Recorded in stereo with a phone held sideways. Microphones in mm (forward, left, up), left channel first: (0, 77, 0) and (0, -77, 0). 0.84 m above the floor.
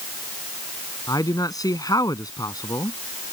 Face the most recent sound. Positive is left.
turn(degrees=25)  # may be behind; listen again after turning